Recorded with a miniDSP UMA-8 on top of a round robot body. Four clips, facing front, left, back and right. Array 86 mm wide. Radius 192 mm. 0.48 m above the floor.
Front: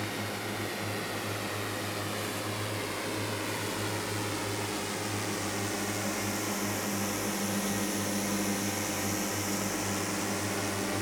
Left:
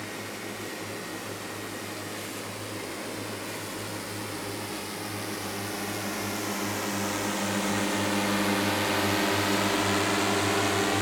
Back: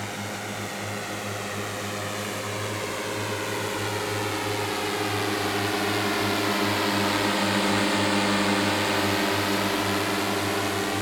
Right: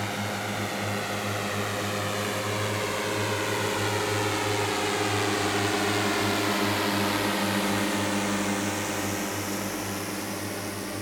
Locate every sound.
0.0 s a drone: 110° right; by 11.0 s 125° left